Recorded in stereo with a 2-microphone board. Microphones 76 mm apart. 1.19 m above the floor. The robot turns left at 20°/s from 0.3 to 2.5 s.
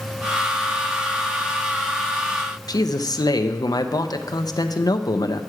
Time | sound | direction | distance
2.7 | a man speaking | 60° left (ahead or behind) | 0.6 m